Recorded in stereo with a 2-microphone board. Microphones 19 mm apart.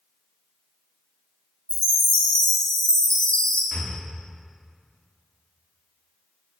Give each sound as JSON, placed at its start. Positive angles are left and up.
{"t": 1.7, "sound": "a chime", "side_deg": 70, "distance_m": 1.6}
{"t": 3.7, "sound": "breathing", "side_deg": 50, "distance_m": 0.6}